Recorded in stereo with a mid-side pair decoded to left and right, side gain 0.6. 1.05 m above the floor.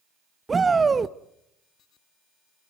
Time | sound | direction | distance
0.5 | a shout | 25° right | 0.8 m